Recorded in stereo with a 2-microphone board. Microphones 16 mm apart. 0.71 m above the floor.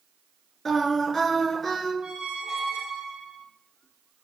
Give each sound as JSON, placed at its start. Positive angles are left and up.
{"t": 0.7, "sound": "singing", "side_deg": 10, "distance_m": 3.0}
{"t": 2.0, "sound": "a squeak", "side_deg": -70, "distance_m": 1.6}